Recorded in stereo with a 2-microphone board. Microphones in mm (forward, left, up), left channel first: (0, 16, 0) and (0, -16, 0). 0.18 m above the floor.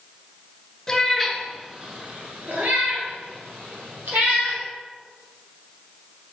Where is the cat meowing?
10° left (ahead or behind), 1.4 m; by 4.6 s 80° right, 3.5 m.